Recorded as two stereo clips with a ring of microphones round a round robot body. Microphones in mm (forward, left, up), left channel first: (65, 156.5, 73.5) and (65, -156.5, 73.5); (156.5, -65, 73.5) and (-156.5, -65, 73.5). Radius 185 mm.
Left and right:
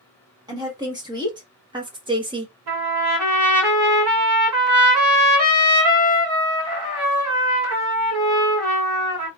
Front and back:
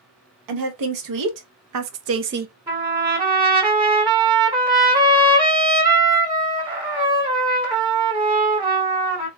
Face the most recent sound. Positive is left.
turn(degrees=-105)